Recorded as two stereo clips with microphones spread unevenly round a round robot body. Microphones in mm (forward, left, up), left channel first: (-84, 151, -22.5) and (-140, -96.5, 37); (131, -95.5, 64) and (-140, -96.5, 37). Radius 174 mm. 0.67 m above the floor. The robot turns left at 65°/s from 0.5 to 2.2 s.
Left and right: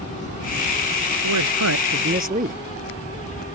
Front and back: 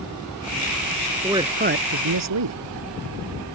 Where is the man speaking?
95° right; by 2.6 s 160° right.